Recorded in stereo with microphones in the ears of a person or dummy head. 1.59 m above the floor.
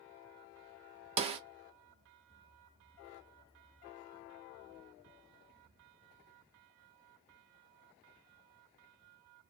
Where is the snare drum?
30° right (ahead or behind), 0.5 m.